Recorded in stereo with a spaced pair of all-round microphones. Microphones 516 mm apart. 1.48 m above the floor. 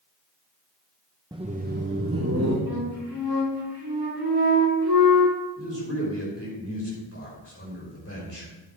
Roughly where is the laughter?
Centre.